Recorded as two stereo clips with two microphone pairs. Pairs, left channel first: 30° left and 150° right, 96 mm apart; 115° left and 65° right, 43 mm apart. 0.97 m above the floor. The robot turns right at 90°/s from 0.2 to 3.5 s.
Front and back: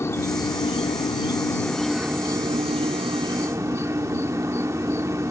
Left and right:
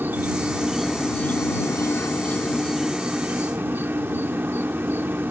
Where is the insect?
30° right; by 5.3 s 95° right.